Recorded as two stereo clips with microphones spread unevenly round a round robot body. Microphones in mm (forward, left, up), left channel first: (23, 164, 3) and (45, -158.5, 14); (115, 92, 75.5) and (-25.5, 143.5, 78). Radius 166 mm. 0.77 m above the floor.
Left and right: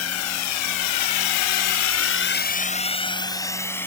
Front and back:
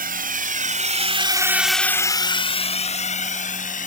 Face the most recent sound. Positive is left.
turn(degrees=10)